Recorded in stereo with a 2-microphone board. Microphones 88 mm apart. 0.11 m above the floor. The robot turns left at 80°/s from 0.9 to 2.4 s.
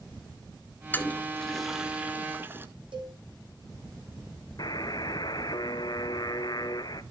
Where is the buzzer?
55° left (ahead or behind), 0.6 m.